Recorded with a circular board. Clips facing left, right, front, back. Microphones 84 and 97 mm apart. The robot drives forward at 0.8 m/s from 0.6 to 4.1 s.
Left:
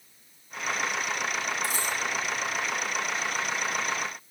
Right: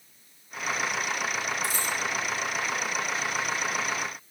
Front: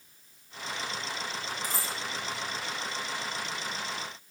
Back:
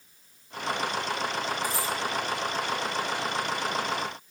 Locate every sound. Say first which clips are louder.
1.6 s a dropped coin: even, back 6 dB; 50° left, 5 m; by 1.9 s 55° left, 5 m